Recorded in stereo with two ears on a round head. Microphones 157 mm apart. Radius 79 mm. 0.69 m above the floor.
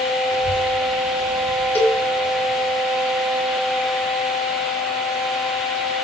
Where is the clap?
No clap in this recording.